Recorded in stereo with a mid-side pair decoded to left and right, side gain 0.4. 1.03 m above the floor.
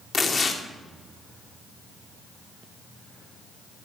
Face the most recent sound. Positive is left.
turn(degrees=40)